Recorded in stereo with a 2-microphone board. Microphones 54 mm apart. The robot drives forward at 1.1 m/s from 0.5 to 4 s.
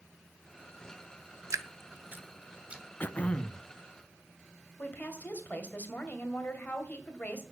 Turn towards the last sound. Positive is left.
turn(degrees=35)  # may be behind; listen again after turning